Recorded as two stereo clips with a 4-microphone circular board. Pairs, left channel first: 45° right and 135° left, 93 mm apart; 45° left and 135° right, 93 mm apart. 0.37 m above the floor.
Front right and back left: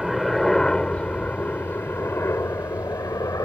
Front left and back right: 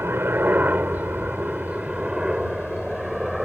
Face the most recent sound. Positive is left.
turn(degrees=-50)